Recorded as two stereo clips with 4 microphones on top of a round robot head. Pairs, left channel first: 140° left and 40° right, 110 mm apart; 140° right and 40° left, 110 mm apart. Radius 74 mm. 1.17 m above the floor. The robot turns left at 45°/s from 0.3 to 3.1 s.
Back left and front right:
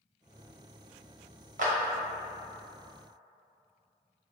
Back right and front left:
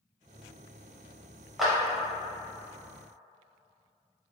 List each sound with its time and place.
1.6 s a clap: 50° right, 0.7 m; by 1.7 s 55° right, 0.7 m